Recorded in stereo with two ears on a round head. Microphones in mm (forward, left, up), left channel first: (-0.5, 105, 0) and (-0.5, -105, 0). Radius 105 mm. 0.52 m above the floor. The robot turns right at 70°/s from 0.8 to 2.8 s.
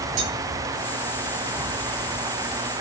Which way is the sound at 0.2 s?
60° right (ahead or behind).